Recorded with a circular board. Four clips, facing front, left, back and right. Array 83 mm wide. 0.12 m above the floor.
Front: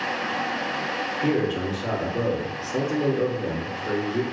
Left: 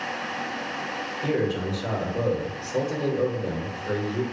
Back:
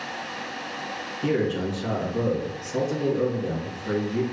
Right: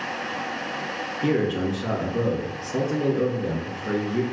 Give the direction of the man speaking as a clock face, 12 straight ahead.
3 o'clock.